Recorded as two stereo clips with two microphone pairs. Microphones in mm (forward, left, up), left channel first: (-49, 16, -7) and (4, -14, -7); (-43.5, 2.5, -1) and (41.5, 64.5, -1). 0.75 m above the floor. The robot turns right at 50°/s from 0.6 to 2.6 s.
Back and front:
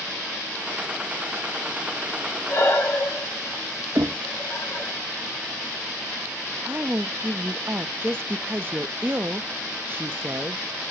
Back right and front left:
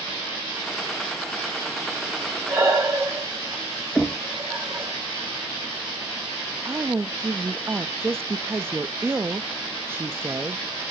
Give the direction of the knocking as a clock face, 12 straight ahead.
2 o'clock.